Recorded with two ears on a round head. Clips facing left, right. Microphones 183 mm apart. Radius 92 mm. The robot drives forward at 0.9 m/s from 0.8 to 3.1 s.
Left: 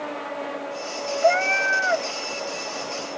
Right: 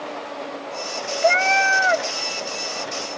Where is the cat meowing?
40° right (ahead or behind), 0.7 m; by 2.1 s 45° right (ahead or behind), 0.6 m.